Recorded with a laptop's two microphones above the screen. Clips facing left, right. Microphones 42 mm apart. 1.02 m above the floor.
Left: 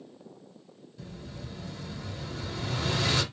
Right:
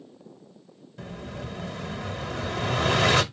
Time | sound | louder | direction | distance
1.0 | an explosion | right 7 dB | 70° right (ahead or behind) | 0.8 m